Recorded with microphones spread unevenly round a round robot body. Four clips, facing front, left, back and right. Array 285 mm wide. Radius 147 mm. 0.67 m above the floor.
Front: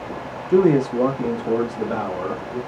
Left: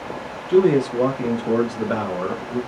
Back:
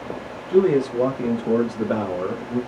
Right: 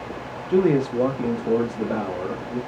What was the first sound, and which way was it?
A man speaking, 5° right.